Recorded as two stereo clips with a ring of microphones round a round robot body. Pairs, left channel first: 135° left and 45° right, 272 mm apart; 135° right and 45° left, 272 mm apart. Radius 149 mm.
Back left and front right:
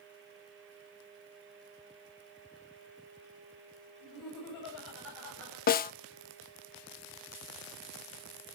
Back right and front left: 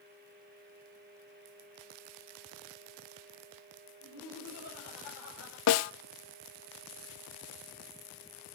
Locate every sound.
4.0 s laughter: 175° left, 6.5 m; by 5.6 s 175° right, 6 m
5.7 s a snare drum: 165° right, 0.6 m